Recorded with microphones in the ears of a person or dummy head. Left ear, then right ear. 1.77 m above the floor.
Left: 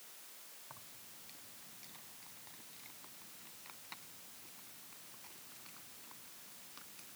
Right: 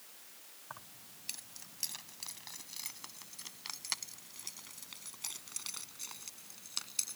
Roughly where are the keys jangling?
Right.